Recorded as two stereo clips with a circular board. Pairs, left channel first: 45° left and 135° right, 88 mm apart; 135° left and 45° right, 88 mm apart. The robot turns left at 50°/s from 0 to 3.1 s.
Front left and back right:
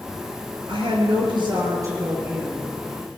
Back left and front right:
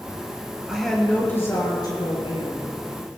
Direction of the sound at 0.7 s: 125° right.